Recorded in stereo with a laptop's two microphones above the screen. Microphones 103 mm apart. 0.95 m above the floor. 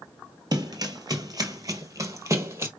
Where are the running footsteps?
40° right (ahead or behind), 1.2 m; by 2.7 s 25° right (ahead or behind), 1.4 m.